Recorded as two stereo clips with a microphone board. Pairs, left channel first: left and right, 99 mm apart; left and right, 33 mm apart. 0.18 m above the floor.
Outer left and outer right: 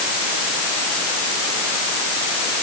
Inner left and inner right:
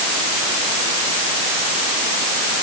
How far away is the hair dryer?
I don't hear a hair dryer.